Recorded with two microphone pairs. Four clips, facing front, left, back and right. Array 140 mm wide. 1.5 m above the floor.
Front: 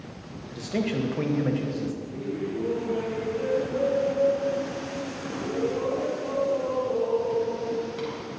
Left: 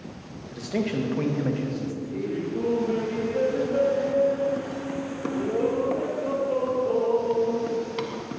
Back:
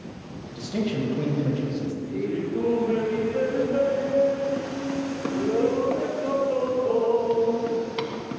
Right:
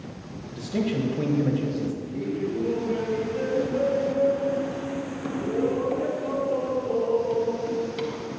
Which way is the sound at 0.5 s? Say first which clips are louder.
Even, even; 45° left.